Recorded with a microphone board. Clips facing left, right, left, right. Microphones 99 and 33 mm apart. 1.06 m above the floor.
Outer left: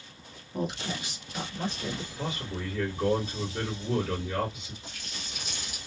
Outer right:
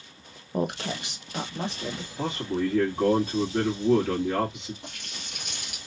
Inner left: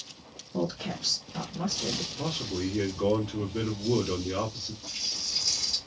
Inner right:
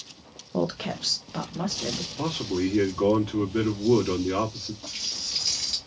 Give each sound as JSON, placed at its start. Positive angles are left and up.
{"t": 0.5, "sound": "a woman speaking", "side_deg": -55, "distance_m": 0.6}
{"t": 2.2, "sound": "a man speaking", "side_deg": -80, "distance_m": 1.4}
{"t": 4.8, "sound": "a running tap", "side_deg": -65, "distance_m": 1.1}